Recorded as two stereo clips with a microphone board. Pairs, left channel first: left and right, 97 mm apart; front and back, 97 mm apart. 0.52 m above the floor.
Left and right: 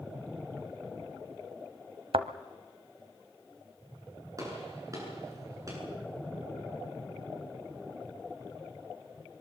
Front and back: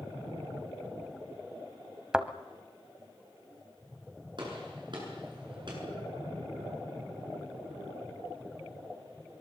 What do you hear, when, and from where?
2.1 s a thud: 100° right, 1.0 m
4.4 s a gunshot: 145° right, 8.5 m